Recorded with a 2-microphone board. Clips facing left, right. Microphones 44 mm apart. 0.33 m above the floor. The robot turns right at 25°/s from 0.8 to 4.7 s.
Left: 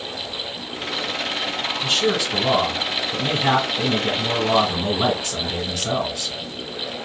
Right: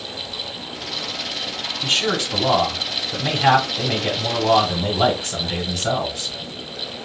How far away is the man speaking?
About 2.5 m.